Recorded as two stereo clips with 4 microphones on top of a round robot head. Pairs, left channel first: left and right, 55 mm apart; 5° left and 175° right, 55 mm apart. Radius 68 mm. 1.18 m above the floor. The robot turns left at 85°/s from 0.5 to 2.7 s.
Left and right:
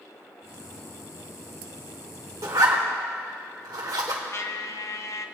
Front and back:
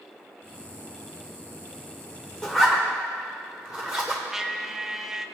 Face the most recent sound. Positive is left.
turn(degrees=105)